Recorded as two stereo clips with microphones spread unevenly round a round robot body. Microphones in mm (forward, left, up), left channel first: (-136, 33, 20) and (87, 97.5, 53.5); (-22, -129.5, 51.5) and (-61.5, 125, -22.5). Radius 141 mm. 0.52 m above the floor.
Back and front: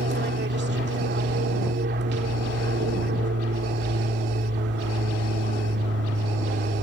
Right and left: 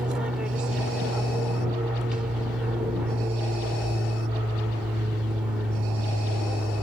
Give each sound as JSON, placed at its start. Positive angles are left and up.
{"t": 0.0, "sound": "an aircraft", "azimuth_deg": 30}